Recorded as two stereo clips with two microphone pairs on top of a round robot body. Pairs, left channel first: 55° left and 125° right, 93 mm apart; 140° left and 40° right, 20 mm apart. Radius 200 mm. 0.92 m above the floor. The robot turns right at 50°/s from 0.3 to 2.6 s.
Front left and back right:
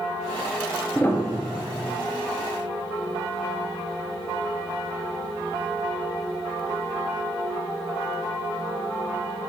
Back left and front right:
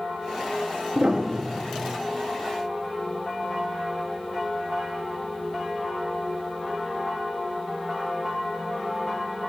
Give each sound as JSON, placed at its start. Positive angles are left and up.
{"t": 0.9, "sound": "a piano", "azimuth_deg": -20, "distance_m": 1.2}